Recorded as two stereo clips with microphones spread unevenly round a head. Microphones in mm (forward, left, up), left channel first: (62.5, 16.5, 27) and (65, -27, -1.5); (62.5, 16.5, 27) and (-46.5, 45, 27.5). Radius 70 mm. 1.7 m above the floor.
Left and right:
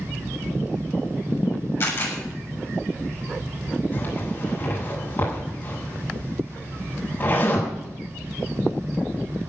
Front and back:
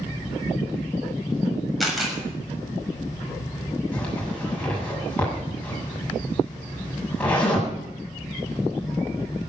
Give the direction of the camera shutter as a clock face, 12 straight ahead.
9 o'clock.